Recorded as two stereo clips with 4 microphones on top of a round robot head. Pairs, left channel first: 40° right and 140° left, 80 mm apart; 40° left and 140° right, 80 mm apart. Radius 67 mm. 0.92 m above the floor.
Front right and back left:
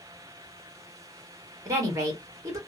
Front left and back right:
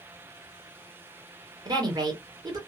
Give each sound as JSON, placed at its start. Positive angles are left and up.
{"t": 1.6, "sound": "a woman speaking", "azimuth_deg": -175, "distance_m": 1.7}